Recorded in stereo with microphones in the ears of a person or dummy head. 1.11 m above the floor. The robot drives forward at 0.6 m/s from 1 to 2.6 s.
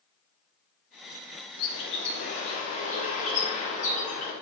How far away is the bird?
About 0.6 m.